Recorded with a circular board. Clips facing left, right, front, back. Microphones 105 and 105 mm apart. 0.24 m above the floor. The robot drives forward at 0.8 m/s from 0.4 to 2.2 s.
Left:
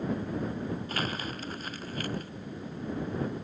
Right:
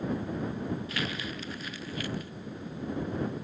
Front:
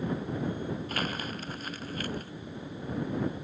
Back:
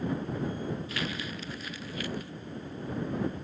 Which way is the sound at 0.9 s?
45° left.